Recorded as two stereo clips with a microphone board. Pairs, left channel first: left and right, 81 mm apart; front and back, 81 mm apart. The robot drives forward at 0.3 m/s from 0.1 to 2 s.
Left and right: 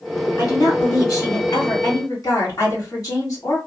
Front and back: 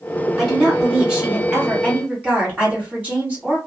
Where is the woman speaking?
95° left, 1.7 m; by 3.6 s 115° left, 1.8 m.